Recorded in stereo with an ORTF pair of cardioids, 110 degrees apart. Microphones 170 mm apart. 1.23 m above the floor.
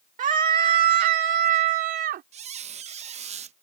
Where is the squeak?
40° right.